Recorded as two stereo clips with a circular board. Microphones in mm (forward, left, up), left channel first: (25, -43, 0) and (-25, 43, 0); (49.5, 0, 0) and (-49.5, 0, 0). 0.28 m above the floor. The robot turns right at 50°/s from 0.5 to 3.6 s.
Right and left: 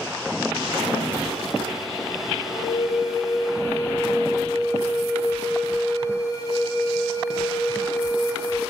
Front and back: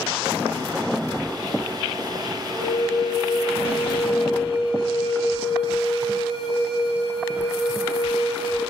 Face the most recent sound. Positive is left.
turn(degrees=-15)